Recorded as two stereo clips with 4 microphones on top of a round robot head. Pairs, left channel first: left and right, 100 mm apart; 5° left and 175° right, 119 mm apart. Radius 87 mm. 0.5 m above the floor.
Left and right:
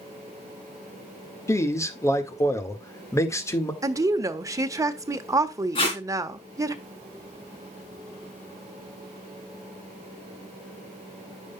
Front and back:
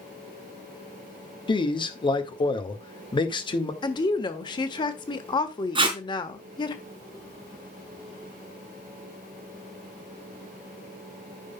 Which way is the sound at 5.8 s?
140° left.